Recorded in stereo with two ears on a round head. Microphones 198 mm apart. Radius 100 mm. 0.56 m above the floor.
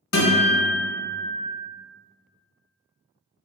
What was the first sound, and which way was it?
A guitar, 80° left.